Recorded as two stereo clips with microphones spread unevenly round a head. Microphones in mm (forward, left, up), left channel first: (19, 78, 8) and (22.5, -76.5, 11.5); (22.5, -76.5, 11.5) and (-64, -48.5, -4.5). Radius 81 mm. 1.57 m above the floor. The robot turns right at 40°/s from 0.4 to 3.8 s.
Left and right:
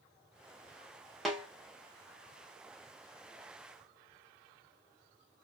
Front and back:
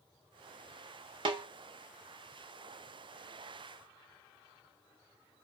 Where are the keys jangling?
I don't hear keys jangling.